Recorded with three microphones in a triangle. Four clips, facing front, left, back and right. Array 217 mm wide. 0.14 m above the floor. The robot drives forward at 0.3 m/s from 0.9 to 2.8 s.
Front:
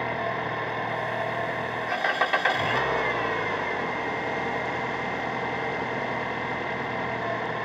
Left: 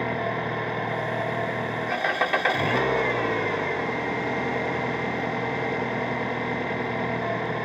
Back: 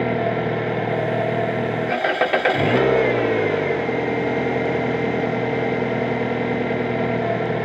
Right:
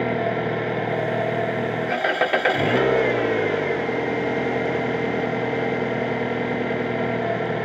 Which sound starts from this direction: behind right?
An engine running, at 0.0 s.